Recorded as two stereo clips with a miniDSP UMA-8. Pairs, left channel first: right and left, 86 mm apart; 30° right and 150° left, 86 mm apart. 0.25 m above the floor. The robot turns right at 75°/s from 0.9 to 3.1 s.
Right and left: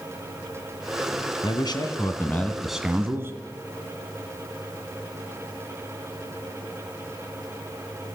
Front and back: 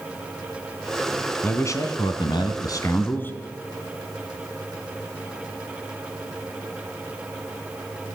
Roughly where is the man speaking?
Right.